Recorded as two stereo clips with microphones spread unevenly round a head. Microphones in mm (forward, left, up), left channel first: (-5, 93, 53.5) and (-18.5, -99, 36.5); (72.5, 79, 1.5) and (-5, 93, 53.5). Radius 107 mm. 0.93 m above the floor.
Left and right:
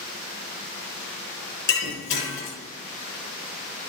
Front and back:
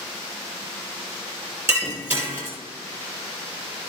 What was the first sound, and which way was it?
Breaking glass, 115° left.